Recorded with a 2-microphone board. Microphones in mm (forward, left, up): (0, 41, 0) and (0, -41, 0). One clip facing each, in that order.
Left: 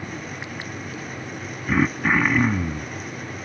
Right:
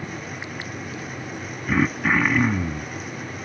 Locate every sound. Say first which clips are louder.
1.7 s throat clearing: even; 5° left (ahead or behind)